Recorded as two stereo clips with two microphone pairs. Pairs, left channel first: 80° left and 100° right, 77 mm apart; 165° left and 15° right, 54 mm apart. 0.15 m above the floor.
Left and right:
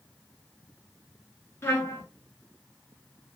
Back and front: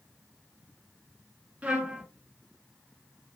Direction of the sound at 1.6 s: 40° left.